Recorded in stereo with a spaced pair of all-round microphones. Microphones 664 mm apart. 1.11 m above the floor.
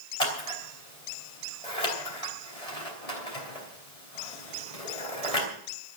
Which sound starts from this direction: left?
Scissors, at 0.2 s.